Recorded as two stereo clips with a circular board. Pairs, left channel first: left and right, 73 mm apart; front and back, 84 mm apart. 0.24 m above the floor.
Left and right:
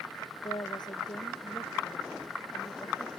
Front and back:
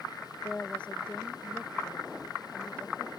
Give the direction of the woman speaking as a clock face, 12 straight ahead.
9 o'clock.